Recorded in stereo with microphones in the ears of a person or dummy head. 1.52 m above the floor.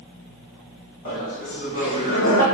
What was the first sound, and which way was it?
Laughter, 40° left (ahead or behind).